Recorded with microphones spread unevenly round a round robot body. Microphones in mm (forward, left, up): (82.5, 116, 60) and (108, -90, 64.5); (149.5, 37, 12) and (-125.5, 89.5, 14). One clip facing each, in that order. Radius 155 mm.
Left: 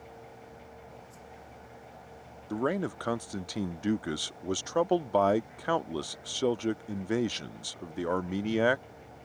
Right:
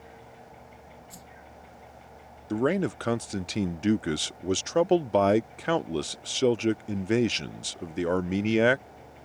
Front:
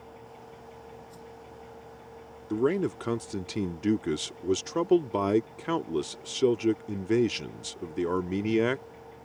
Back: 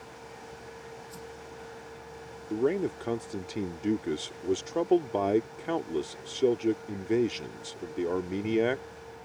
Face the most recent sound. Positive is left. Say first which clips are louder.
# right 5 dB, front 1 dB
turn(degrees=-60)